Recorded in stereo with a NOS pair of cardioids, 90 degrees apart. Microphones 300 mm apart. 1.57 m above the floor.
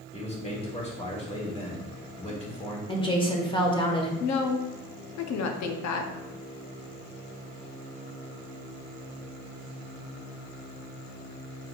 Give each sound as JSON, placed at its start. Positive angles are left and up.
{"t": 0.1, "sound": "a man speaking", "azimuth_deg": 20, "distance_m": 2.0}
{"t": 2.9, "sound": "a woman speaking", "azimuth_deg": 15, "distance_m": 1.3}
{"t": 4.2, "sound": "a woman speaking", "azimuth_deg": 65, "distance_m": 0.8}